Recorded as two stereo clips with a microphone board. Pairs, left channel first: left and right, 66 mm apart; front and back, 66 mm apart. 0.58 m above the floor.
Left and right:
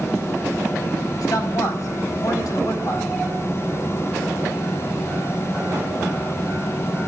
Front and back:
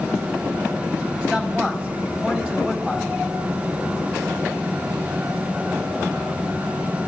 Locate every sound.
1.2 s a man speaking: 110° left, 3.5 m